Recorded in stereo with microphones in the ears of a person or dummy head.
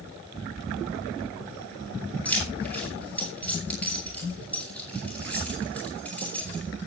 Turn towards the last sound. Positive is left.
turn(degrees=10)  # may be behind; listen again after turning